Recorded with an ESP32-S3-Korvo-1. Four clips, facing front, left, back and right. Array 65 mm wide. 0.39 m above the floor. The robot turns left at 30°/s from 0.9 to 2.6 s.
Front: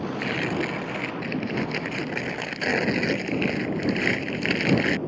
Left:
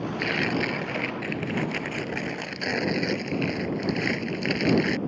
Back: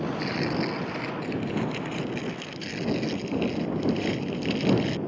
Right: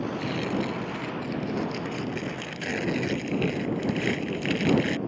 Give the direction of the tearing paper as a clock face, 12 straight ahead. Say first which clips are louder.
Left 6 dB, front 3 dB; 10 o'clock.